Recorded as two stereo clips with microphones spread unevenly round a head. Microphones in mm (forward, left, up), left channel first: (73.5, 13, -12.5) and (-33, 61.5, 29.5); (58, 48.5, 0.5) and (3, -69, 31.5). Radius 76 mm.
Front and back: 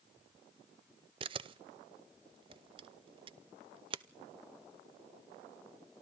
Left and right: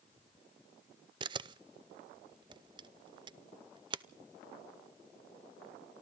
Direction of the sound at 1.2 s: 160° right.